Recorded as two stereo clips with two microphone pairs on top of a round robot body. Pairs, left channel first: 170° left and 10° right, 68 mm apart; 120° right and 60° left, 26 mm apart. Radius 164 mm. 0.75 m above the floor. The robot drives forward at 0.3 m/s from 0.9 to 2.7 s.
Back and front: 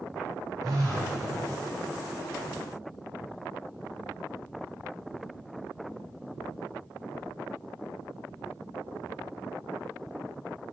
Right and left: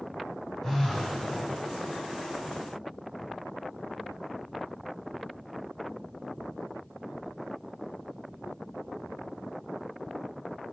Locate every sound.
0.6 s a phone buzzing: 55° right, 1.1 m